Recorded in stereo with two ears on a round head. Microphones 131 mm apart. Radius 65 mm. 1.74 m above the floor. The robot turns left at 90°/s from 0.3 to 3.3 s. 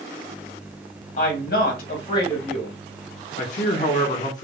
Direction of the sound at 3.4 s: 55° left (ahead or behind).